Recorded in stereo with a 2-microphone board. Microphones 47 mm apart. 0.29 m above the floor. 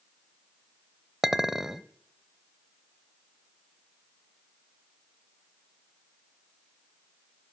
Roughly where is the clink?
Centre.